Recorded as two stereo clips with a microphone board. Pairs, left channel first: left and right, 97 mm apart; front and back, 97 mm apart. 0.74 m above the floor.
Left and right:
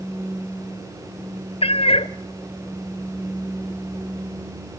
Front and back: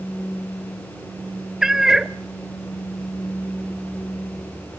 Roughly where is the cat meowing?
Left.